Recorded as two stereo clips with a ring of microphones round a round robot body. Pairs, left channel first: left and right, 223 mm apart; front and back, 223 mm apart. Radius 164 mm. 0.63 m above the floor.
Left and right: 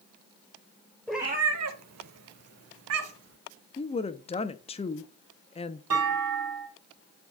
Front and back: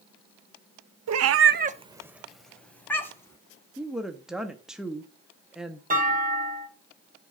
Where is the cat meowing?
175° left, 0.6 m; by 3.4 s 80° right, 2 m.